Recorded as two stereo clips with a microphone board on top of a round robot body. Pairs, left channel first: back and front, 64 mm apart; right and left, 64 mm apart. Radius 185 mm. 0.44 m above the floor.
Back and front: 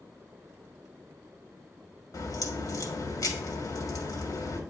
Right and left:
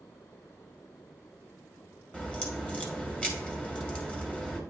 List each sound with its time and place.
2.1 s a crack: 160° right, 1.9 m